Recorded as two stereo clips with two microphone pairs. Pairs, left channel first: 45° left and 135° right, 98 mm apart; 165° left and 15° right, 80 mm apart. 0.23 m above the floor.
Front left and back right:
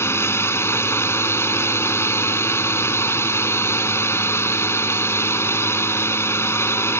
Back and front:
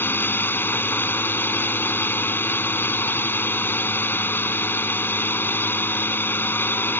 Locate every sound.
0.0 s a drone: 105° left